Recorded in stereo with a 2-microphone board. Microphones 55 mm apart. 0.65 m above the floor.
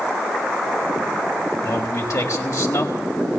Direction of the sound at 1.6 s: 75° left (ahead or behind).